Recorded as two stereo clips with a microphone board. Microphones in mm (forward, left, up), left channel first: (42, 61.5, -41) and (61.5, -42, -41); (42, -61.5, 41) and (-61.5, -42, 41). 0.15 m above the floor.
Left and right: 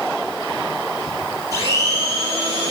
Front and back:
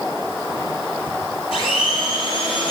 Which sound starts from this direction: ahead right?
A blender, at 1.5 s.